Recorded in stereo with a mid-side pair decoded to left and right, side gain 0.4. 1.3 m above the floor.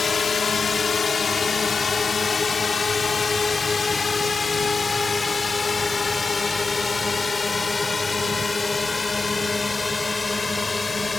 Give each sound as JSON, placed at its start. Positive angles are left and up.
{"t": 0.0, "sound": "a drone", "azimuth_deg": 50}